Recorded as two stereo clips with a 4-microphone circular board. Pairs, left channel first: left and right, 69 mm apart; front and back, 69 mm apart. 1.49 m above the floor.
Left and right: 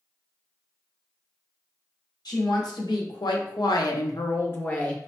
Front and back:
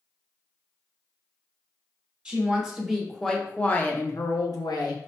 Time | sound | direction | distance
2.2 | a woman speaking | 100° left | 1.2 m